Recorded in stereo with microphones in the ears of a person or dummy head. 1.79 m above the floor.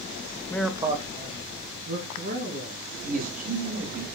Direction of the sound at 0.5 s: 15° left (ahead or behind).